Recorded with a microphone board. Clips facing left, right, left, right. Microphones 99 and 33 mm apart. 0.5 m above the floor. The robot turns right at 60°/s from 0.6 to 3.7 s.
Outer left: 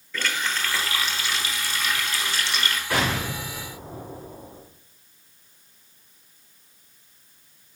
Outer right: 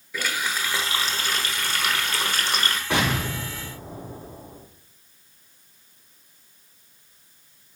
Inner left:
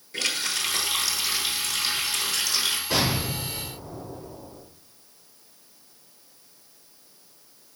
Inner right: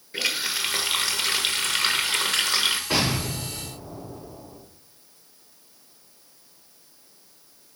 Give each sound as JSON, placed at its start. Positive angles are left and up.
{"t": 0.1, "sound": "a running tap", "azimuth_deg": -170, "distance_m": 1.0}
{"t": 2.9, "sound": "an explosion", "azimuth_deg": -25, "distance_m": 4.0}